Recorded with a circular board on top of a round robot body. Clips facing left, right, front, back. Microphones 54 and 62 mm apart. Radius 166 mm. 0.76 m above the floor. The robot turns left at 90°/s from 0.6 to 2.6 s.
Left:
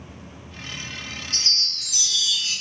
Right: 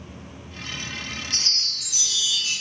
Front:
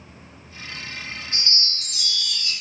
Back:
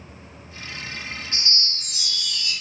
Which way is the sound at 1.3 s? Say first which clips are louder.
Left 1 dB, even; 125° right.